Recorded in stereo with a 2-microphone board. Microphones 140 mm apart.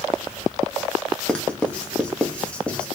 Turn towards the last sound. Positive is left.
turn(degrees=10)  # may be behind; listen again after turning